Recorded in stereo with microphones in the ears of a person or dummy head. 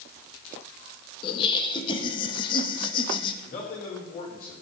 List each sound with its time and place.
1.2 s laughter: 30° left (ahead or behind), 1.6 m
3.5 s a man speaking: 55° left (ahead or behind), 4 m